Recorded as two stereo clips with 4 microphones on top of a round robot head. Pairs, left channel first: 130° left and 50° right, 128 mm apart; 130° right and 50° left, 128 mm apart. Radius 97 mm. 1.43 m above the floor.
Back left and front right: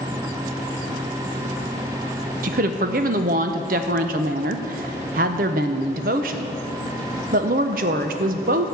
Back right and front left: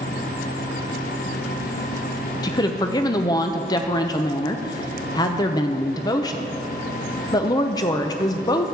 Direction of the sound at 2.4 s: 70° right.